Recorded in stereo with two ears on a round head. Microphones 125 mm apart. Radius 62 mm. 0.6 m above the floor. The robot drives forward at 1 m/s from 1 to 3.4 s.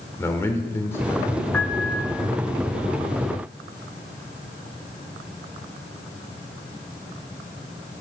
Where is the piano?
10° left (ahead or behind), 0.9 m.